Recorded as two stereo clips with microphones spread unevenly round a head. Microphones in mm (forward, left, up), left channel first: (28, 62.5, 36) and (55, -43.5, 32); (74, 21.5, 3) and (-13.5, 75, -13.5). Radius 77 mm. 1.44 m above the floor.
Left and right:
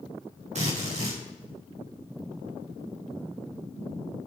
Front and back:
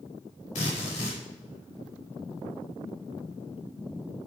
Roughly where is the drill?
Ahead right.